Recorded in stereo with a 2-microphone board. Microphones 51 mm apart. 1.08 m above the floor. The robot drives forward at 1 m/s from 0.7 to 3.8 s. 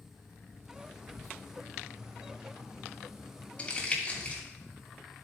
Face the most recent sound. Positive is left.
turn(degrees=20)  # may be behind; listen again after turning